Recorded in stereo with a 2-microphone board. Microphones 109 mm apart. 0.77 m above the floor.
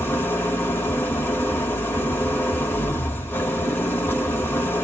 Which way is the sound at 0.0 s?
20° left (ahead or behind).